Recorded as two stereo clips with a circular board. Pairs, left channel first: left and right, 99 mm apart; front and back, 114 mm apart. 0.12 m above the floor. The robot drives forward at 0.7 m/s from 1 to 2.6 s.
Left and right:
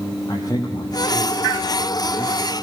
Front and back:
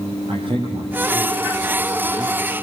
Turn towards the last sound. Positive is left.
turn(degrees=145)